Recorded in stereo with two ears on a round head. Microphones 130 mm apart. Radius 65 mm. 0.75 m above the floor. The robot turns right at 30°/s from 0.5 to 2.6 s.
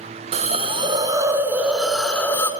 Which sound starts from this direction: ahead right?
A hiss, at 0.3 s.